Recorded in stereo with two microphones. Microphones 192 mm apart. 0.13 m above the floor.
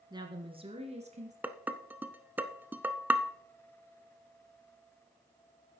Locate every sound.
0.1 s a woman speaking: 20° right (ahead or behind), 2.0 m; by 1.3 s 40° right (ahead or behind), 2.5 m
1.4 s dishes clattering: 10° right (ahead or behind), 0.7 m